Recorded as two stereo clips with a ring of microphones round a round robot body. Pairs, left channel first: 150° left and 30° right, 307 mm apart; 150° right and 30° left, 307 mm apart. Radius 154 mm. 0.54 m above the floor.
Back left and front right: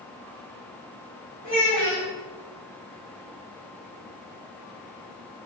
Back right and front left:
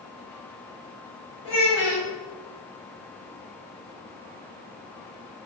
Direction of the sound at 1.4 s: 100° right.